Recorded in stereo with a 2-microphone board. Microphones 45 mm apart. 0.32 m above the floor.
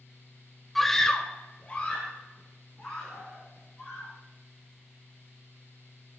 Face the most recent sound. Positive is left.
turn(degrees=25)  # may be behind; listen again after turning